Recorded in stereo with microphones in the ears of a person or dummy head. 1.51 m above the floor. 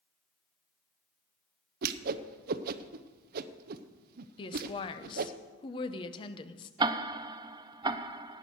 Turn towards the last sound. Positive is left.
turn(degrees=-25)  # may be behind; listen again after turning